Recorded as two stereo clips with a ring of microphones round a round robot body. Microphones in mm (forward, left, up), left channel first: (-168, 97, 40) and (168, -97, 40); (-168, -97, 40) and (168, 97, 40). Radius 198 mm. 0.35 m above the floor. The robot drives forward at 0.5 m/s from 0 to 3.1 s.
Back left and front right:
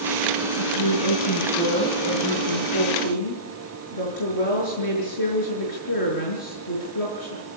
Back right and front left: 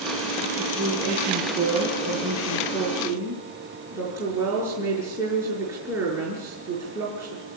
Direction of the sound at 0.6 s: 100° left.